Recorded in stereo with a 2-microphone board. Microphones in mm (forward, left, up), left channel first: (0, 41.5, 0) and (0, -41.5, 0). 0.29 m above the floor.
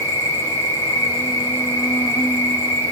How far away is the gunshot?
No gunshot in this recording.